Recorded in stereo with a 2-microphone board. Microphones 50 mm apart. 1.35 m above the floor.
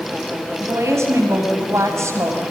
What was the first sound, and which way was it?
A woman speaking, 70° right (ahead or behind).